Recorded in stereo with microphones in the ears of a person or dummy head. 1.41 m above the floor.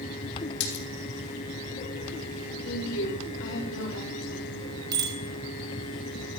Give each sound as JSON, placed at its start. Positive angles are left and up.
{"t": 0.6, "sound": "a splash", "side_deg": 75, "distance_m": 3.5}
{"t": 2.6, "sound": "a woman speaking", "side_deg": 70, "distance_m": 4.5}
{"t": 4.9, "sound": "a bicycle bell", "side_deg": -20, "distance_m": 3.0}